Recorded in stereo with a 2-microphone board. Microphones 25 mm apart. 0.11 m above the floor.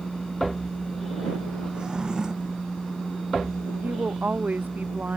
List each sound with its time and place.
1.7 s a drawer: 30° right (ahead or behind)
3.8 s a woman speaking: 85° right